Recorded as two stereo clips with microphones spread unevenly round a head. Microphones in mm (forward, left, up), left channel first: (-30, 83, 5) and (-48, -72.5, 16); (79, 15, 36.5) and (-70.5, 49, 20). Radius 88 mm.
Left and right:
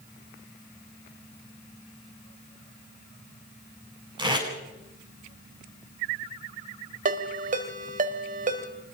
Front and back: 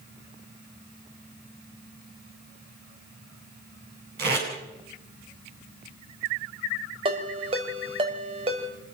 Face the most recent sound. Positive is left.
turn(degrees=-130)